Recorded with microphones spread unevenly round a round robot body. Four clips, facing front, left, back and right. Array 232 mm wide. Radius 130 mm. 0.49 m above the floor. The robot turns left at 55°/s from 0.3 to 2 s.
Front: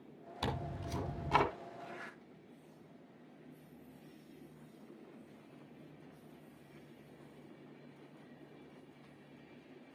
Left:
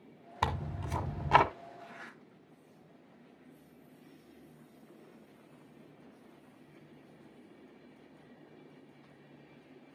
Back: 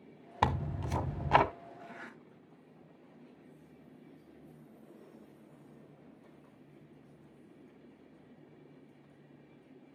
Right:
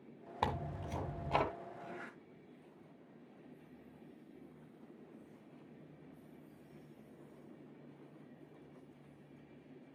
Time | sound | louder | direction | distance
0.4 | tearing paper | left 3 dB, back 8 dB | 160° left | 1.2 m
1.8 | a zipper | right 1 dB, even | straight behind | 8 m